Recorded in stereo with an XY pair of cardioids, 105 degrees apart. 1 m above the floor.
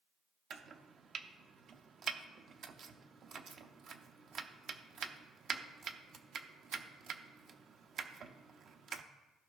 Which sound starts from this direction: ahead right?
Chopping, at 0.5 s.